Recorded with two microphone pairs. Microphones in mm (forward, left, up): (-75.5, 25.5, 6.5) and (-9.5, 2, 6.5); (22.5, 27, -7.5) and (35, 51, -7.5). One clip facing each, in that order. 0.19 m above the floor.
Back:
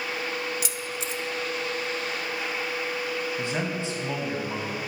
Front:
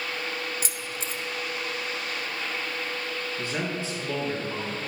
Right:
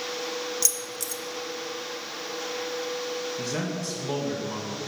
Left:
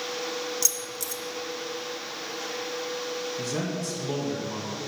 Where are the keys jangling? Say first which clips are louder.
Back 2 dB, even; 15° right, 0.8 m.